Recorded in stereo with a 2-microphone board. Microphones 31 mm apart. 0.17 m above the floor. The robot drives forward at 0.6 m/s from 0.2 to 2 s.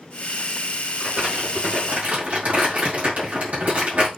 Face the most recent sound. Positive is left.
turn(degrees=-60)  # may be behind; listen again after turning